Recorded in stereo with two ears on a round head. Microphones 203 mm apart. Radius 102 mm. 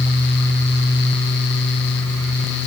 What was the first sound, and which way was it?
Only background noise.